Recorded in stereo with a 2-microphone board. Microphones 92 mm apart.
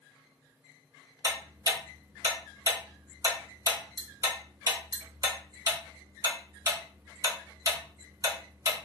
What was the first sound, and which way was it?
Ticking, 35° right (ahead or behind).